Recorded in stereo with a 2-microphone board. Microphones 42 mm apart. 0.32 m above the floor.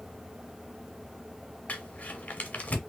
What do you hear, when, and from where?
1.7 s crumpling: 35° left (ahead or behind), 1.3 m